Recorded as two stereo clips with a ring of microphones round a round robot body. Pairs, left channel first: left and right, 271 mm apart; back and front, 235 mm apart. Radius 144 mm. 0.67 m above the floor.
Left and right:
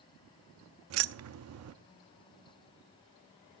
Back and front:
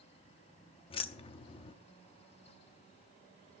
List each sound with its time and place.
0.9 s keys jangling: 115° right, 0.7 m